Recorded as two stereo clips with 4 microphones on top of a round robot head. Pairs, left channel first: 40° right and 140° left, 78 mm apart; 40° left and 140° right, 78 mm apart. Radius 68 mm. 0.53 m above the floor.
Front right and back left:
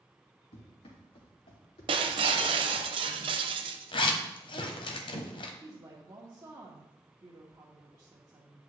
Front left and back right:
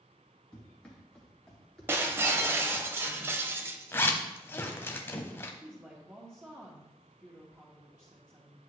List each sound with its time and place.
0.5 s running footsteps: 40° right, 4 m; by 2.9 s 45° right, 5.5 m
1.9 s breaking glass: 160° left, 0.6 m
3.9 s a zipper: 20° right, 1.1 m
5.6 s a woman speaking: 170° left, 1.7 m